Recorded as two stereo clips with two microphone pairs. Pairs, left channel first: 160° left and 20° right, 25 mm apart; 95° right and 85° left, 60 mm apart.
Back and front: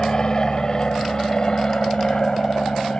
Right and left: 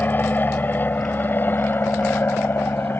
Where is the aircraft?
150° right; by 3.0 s 145° right.